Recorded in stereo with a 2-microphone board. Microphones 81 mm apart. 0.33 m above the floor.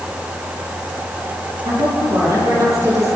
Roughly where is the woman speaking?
Right.